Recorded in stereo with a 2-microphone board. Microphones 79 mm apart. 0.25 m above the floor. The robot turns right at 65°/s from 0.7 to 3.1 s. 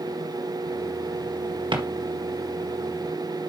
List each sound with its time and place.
1.7 s a drawer: 80° right, 1.7 m; by 1.8 s 85° right, 1.7 m